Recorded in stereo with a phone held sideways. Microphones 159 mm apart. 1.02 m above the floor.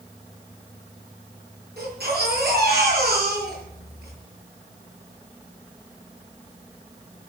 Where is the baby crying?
80° right, 7.5 m.